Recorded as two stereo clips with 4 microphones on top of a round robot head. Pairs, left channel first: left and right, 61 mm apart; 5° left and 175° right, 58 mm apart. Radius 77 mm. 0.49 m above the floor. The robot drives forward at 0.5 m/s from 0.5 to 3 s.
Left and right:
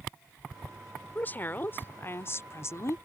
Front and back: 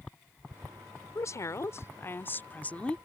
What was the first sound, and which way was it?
A woman speaking, 35° left.